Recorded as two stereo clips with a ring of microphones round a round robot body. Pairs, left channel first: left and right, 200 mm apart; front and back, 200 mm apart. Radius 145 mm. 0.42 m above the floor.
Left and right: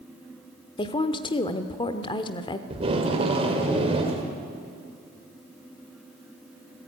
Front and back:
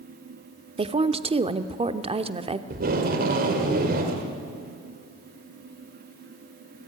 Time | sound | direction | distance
0.8 | a woman speaking | 140° left | 0.9 m
2.7 | tape being pulled | 150° right | 1.8 m